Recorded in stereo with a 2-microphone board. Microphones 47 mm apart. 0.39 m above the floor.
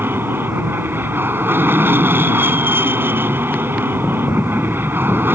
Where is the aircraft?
50° right (ahead or behind).